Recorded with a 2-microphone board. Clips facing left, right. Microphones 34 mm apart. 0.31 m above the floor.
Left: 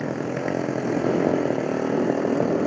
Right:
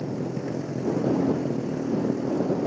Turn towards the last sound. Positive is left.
turn(degrees=65)  # may be behind; listen again after turning